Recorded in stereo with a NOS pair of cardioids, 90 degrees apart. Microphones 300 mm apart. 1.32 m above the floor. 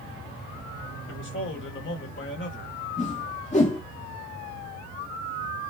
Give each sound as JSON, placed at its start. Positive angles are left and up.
{"t": 1.1, "sound": "a man speaking", "azimuth_deg": 40, "distance_m": 1.6}
{"t": 3.0, "sound": "a whoosh", "azimuth_deg": 25, "distance_m": 1.2}